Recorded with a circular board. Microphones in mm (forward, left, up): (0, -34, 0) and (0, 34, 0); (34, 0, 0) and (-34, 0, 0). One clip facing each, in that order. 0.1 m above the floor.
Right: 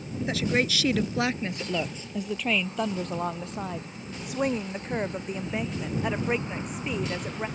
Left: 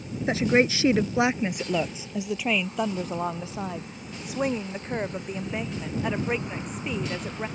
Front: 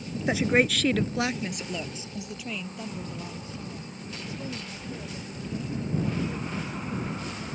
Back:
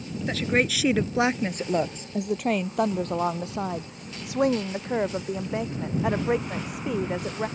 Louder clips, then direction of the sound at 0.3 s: Left 5 dB, front 2 dB; 55° left.